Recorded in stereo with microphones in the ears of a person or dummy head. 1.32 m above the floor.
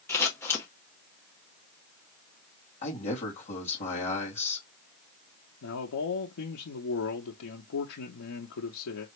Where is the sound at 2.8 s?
40° left (ahead or behind), 2.5 m.